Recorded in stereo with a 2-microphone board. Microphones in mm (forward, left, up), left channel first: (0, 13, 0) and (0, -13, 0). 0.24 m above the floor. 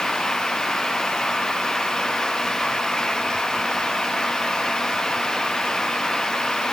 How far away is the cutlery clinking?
I don't hear cutlery clinking.